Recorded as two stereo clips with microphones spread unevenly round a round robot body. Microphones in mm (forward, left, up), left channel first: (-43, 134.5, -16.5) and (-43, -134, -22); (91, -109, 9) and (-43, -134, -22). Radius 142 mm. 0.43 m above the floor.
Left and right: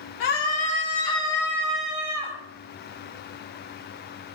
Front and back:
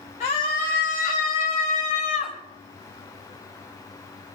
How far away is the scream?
About 1.9 m.